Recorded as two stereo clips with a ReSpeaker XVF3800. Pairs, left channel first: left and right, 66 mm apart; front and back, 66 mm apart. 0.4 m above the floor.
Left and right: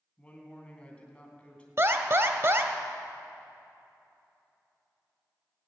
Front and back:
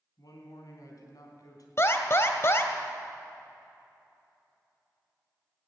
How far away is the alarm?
About 1.2 m.